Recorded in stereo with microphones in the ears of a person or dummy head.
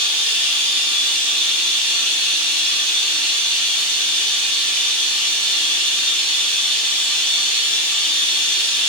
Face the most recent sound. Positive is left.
turn(degrees=0)  # may be behind; listen again after turning